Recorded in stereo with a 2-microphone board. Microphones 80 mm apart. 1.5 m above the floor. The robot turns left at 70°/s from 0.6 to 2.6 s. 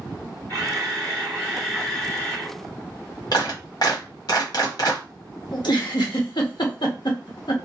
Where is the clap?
65° left (ahead or behind), 1.0 m.